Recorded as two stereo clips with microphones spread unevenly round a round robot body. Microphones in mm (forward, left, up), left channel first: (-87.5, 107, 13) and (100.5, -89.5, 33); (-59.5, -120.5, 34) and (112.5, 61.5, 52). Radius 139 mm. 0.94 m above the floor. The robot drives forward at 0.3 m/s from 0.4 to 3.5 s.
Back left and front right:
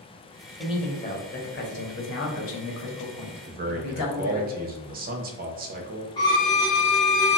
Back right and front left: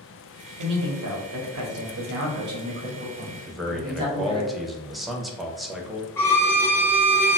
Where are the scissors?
No scissors in this recording.